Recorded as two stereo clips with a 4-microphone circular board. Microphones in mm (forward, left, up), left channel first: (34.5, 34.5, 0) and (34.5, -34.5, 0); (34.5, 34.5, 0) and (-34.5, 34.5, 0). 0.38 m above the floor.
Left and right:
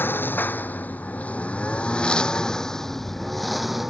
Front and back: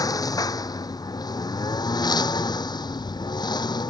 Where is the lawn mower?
30° left; by 3.9 s 5° right.